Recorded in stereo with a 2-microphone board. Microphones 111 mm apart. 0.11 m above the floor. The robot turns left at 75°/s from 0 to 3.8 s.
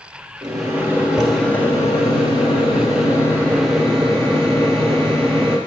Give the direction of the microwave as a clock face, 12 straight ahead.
4 o'clock.